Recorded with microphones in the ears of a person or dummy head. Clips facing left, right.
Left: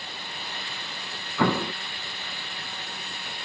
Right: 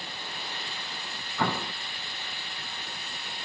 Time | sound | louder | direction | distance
1.4 | an explosion | left 6 dB | 60° left (ahead or behind) | ?